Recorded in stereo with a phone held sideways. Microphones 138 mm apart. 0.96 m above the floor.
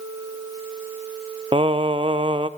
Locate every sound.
1.5 s singing: 40° right (ahead or behind), 0.7 m